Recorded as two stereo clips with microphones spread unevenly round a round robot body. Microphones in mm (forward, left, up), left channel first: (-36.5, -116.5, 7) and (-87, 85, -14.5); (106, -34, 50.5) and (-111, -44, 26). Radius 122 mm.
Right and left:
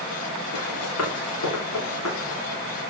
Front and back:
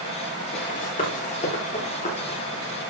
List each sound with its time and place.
0.5 s running footsteps: 50° right, 8 m; by 2.4 s 60° right, 7.5 m